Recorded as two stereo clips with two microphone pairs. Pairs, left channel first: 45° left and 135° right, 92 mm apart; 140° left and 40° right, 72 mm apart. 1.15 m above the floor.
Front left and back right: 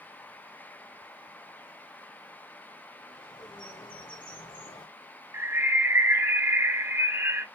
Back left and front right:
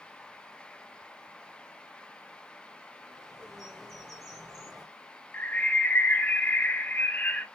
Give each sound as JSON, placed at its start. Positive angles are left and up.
{"t": 3.0, "sound": "a bird", "azimuth_deg": 45, "distance_m": 2.5}
{"t": 5.3, "sound": "a bird", "azimuth_deg": -175, "distance_m": 0.5}